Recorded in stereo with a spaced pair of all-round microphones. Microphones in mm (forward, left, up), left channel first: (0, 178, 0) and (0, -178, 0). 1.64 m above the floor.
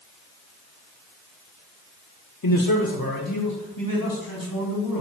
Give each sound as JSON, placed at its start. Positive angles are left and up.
{"t": 2.4, "sound": "a man speaking", "side_deg": 65, "distance_m": 0.7}